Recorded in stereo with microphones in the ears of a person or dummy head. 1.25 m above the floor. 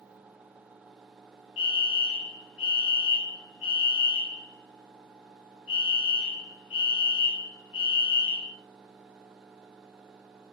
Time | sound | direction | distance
1.6 | a fire alarm | 55° left (ahead or behind) | 2.5 m